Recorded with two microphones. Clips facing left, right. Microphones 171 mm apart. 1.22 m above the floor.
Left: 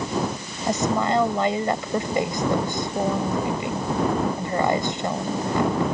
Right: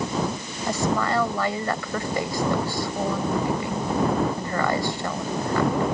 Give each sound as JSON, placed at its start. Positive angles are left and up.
{"t": 0.7, "sound": "a woman speaking", "side_deg": 20}